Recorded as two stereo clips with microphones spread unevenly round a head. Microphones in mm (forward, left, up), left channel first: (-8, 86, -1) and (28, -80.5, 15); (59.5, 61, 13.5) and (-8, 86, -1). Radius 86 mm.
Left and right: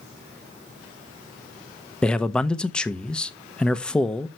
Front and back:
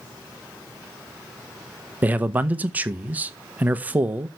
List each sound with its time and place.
2.0 s a man speaking: 175° left, 0.7 m